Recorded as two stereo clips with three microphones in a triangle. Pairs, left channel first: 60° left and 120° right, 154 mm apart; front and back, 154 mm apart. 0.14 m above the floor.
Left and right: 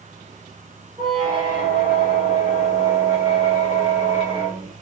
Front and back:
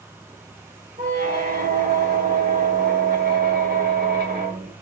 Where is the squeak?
Straight behind, 1.3 m.